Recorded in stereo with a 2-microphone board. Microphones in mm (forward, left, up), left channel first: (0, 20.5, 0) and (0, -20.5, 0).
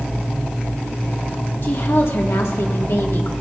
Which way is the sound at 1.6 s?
60° left (ahead or behind).